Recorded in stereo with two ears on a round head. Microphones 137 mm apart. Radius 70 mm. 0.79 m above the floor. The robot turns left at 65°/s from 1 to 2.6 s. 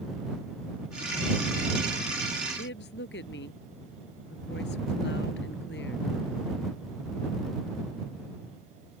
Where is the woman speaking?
85° left.